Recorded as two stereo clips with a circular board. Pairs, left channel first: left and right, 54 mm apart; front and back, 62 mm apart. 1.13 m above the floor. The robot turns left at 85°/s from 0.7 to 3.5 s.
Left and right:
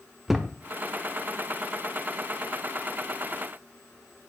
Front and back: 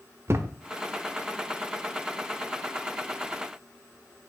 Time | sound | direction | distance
0.3 | a thud | 175° right | 0.9 m